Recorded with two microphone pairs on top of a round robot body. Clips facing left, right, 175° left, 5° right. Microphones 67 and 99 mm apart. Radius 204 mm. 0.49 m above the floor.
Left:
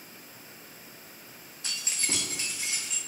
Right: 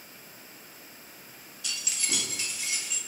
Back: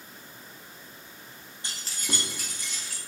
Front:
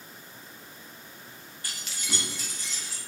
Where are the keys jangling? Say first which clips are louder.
Left 1 dB, back 2 dB; 110° left, 0.8 m; by 3.0 s 145° left, 1.9 m.